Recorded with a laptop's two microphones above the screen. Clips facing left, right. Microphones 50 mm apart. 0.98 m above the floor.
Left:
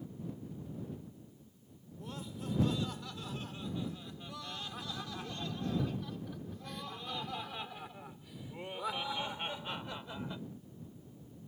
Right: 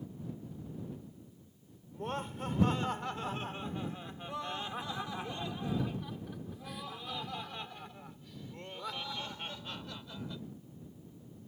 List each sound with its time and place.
1.9 s laughter: 50° right (ahead or behind); by 10.4 s 25° left (ahead or behind)